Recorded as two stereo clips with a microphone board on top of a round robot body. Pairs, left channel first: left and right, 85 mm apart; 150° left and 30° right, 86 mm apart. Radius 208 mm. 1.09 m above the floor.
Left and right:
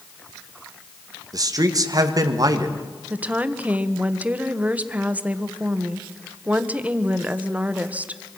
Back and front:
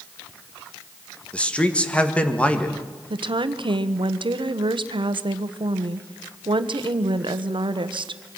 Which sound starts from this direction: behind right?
A man speaking, at 1.3 s.